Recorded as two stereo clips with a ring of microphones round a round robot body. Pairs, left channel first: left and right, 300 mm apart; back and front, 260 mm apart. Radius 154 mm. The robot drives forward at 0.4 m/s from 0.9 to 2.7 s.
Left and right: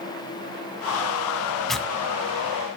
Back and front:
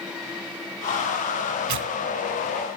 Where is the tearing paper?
Straight ahead, 1.9 m.